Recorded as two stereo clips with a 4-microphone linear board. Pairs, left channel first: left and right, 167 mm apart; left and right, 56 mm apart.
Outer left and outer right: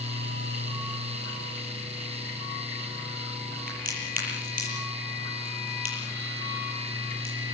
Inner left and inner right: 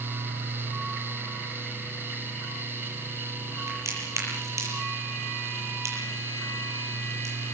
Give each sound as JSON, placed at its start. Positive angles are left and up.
{"t": 3.7, "sound": "a crack", "side_deg": -55, "distance_m": 7.5}